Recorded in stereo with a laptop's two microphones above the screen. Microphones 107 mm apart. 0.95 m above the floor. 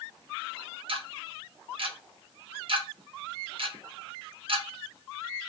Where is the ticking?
55° right (ahead or behind), 0.8 m.